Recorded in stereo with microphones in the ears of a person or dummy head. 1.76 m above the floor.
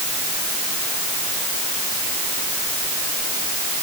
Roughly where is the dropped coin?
No dropped coin in this recording.